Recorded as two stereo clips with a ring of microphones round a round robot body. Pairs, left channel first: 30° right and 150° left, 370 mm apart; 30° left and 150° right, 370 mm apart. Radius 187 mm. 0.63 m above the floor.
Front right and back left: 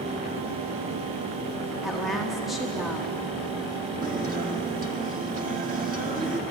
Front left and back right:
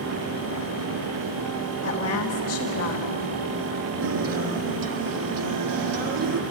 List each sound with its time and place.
1.8 s a woman speaking: 60° left, 1.5 m
4.0 s a guitar: 145° right, 1.6 m